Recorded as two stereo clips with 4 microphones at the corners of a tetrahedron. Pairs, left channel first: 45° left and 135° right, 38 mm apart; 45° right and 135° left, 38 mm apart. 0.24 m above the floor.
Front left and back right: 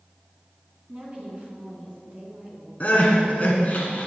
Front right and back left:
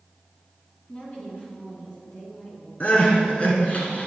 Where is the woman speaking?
80° right, 3 m.